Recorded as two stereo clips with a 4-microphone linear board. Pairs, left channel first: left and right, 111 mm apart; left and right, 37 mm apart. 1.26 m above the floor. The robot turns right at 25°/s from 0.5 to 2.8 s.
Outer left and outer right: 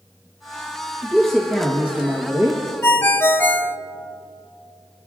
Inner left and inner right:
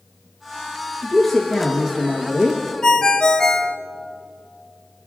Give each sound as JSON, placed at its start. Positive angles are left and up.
{"t": 1.0, "sound": "a man speaking", "azimuth_deg": 170, "distance_m": 1.2}
{"t": 2.8, "sound": "a ringtone", "side_deg": 20, "distance_m": 0.6}